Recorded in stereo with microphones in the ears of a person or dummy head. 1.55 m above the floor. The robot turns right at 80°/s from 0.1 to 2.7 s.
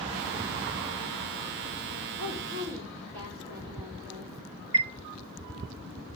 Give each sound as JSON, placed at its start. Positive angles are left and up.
{"t": 2.2, "sound": "a woman speaking", "azimuth_deg": -85, "distance_m": 4.5}
{"t": 4.7, "sound": "a chime", "side_deg": -20, "distance_m": 0.8}